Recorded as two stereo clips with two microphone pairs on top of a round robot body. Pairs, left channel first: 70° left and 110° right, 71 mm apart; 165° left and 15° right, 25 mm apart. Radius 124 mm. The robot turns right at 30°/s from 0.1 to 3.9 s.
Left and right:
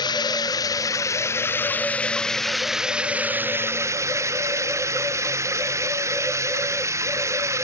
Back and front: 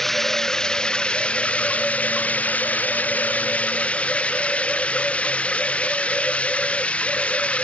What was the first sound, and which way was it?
Running water, 85° left.